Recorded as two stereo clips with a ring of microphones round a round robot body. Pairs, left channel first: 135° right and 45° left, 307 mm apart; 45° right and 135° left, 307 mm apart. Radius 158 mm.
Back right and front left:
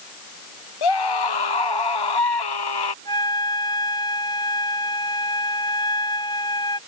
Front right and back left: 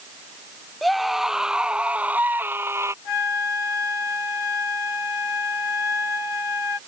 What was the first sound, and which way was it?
A scream, 135° right.